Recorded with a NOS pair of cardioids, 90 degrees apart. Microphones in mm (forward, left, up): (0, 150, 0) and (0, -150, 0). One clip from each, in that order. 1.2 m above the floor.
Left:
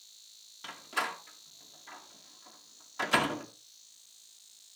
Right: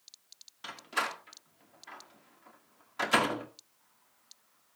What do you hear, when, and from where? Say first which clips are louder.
0.6 s a door slam: right 1 dB; 5° right, 2 m